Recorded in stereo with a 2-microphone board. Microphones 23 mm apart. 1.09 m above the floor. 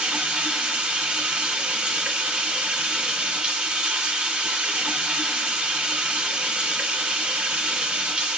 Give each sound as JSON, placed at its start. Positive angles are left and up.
{"t": 0.0, "sound": "running water", "side_deg": -60, "distance_m": 2.0}